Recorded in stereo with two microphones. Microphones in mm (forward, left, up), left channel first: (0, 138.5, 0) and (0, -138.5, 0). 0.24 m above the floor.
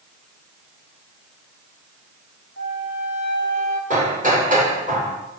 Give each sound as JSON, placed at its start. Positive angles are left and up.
{"t": 2.6, "sound": "a flute", "side_deg": -65, "distance_m": 7.0}
{"t": 3.9, "sound": "hammering", "side_deg": -25, "distance_m": 7.0}